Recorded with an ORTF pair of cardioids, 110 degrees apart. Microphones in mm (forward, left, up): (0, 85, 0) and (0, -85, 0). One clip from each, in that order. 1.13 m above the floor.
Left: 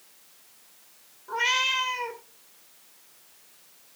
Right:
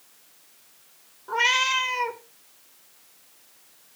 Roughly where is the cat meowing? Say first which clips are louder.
Right 3 dB; ahead right.